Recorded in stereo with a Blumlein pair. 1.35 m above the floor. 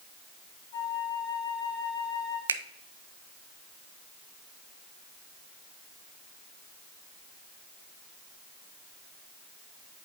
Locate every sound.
0.7 s a flute: 45° left, 4 m
2.5 s a finger snap: 70° right, 0.6 m